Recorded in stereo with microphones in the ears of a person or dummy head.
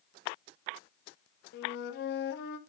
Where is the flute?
60° left (ahead or behind), 1.0 m.